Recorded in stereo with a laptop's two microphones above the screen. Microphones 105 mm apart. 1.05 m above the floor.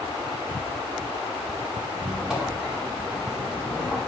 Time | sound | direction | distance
1.9 | a squeak | 5° right (ahead or behind) | 2 m